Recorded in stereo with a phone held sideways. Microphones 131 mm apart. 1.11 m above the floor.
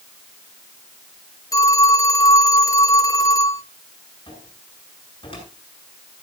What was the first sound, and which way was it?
A phone ringing, 25° left (ahead or behind).